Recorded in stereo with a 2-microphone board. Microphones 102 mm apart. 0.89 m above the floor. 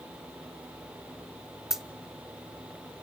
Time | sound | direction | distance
1.7 | a dropped coin | 5° right (ahead or behind) | 0.8 m